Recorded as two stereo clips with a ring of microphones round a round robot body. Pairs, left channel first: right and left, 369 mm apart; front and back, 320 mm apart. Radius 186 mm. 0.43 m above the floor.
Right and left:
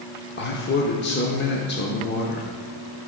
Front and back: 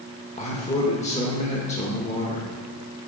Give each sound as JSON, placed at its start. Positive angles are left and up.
{"t": 0.4, "sound": "a man speaking", "azimuth_deg": -55, "distance_m": 0.8}